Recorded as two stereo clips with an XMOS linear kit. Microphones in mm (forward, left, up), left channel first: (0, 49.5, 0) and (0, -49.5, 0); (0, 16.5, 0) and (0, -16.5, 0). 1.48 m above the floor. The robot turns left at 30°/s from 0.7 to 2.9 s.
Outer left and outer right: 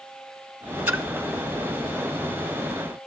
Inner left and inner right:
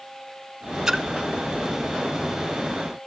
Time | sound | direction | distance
0.9 | a splash | 15° right (ahead or behind) | 1.3 m